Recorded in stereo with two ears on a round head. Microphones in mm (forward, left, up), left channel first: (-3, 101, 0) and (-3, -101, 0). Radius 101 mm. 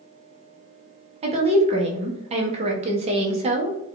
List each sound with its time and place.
1.2 s a woman speaking: 25° right (ahead or behind), 0.7 m